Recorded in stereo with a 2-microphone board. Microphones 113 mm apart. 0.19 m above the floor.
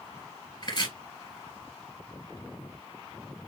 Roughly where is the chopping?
Left.